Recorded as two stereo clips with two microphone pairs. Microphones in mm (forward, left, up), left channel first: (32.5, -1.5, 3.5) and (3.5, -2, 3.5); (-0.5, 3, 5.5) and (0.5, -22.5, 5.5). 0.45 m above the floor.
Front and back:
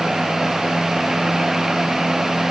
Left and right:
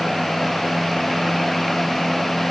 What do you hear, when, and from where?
Only background noise.